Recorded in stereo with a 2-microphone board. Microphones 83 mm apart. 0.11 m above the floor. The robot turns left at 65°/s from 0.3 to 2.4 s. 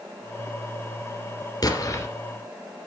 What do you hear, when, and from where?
1.6 s an explosion: 45° left (ahead or behind), 2.5 m; by 2.1 s 30° left (ahead or behind), 2.5 m